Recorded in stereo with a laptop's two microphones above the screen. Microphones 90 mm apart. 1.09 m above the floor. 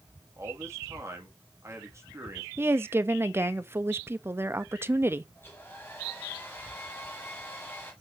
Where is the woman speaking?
25° right (ahead or behind), 1.0 m.